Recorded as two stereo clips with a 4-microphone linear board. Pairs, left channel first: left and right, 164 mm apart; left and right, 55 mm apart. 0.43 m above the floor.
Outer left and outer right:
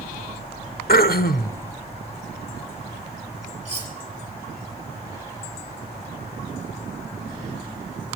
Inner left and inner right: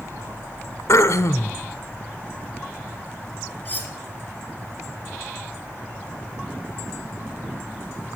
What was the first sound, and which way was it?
Throat clearing, 65° left (ahead or behind).